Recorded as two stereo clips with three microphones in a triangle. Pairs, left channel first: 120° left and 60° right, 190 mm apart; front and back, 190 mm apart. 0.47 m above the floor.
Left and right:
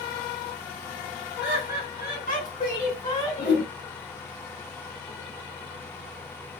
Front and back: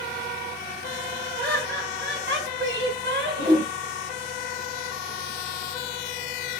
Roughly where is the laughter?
Behind left.